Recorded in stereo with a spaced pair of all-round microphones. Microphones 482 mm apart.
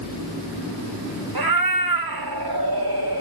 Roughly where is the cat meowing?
Right.